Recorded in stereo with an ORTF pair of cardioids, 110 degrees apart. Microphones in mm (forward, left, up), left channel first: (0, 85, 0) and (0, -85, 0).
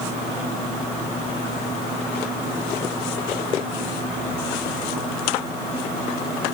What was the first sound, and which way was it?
Only background noise.